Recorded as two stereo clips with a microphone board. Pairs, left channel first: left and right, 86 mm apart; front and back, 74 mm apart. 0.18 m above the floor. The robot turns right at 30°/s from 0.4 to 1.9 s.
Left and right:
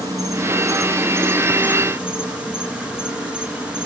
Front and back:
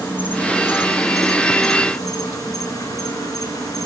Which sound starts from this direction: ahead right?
An insect, at 0.0 s.